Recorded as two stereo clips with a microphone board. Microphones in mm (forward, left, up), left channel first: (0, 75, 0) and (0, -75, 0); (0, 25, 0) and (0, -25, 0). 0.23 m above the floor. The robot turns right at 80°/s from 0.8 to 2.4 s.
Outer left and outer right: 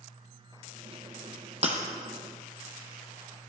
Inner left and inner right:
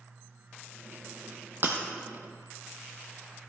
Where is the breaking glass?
45° right (ahead or behind), 1.5 m; by 1.8 s 55° right (ahead or behind), 1.5 m.